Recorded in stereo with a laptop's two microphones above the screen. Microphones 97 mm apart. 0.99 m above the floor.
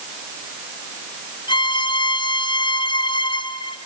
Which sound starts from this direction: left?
A violin, at 1.5 s.